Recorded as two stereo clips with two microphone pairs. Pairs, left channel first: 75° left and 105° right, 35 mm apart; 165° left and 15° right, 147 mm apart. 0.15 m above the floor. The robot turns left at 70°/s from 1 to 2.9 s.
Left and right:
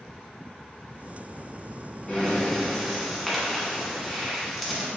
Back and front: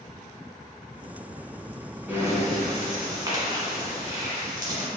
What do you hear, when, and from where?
2.1 s breathing: 40° left, 1.1 m; by 4.9 s 15° right, 1.1 m